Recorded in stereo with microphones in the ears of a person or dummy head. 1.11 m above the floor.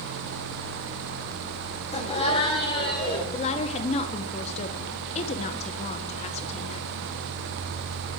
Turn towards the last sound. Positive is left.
turn(degrees=35)  # may be behind; listen again after turning